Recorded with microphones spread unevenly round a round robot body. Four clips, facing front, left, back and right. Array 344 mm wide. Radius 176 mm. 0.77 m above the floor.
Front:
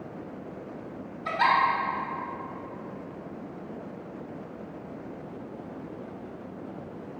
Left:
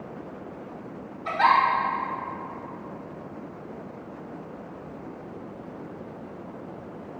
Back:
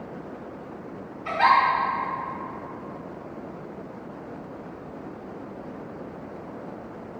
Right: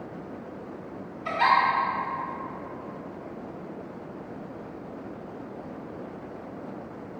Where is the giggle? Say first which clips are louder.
Left 2 dB, back 4 dB; 40° right, 2.5 m.